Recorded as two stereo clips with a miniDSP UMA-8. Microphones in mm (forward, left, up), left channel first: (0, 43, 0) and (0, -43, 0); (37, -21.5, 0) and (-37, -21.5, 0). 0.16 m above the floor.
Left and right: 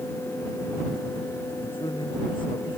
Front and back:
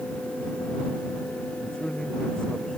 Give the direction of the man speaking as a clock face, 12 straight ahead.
9 o'clock.